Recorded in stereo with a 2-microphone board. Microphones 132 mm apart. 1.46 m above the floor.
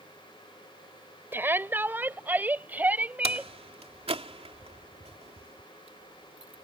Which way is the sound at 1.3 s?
15° right (ahead or behind).